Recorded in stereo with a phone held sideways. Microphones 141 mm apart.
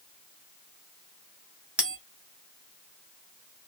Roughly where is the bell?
Centre.